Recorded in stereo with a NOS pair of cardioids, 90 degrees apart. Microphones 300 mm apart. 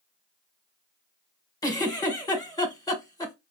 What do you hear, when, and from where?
1.6 s a giggle: 10° left, 1.3 m